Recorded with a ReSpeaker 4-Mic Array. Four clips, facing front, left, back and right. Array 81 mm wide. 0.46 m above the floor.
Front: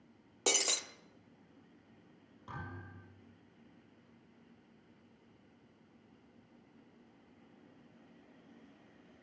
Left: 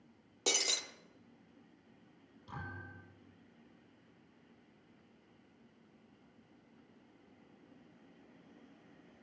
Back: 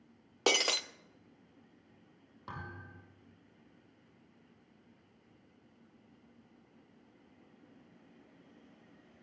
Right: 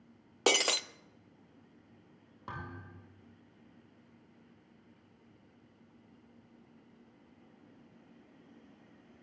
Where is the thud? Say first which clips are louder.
Right 2 dB, back 1 dB; 115° right, 8 m.